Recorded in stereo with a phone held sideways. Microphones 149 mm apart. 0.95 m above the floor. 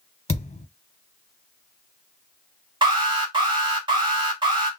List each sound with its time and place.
0.3 s a thud: 50° left (ahead or behind), 0.6 m
2.8 s an alarm: 30° right (ahead or behind), 1.8 m